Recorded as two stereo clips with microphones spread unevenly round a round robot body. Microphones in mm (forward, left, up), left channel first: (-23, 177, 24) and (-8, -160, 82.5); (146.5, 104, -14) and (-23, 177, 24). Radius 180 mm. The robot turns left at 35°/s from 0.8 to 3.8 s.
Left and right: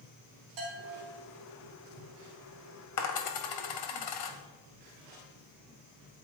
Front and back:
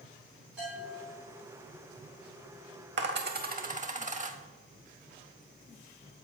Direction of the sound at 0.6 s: 110° right.